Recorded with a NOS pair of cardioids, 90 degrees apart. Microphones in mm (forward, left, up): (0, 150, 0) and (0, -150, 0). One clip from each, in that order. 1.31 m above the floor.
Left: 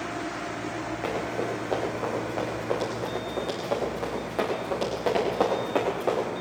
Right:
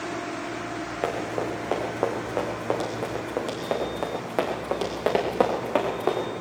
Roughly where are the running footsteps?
Ahead right.